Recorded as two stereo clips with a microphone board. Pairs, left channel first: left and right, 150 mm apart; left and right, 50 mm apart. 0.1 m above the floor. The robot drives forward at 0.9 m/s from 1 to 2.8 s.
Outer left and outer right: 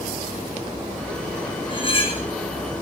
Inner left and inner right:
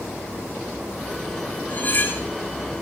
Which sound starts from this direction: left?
Cutlery clinking, at 1.7 s.